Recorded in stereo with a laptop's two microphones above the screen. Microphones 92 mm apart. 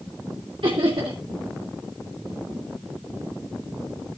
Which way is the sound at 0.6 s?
70° right (ahead or behind).